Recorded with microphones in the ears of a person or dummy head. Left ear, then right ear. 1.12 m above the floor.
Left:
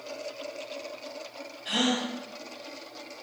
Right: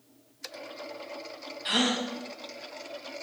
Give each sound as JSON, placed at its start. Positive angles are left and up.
{"t": 1.6, "sound": "a gasp", "side_deg": -55, "distance_m": 0.8}